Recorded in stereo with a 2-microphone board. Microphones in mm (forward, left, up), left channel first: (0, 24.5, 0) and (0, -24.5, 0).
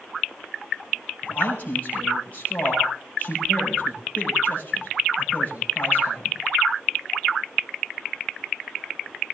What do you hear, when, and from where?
1.2 s a man speaking: 35° left (ahead or behind), 6.5 m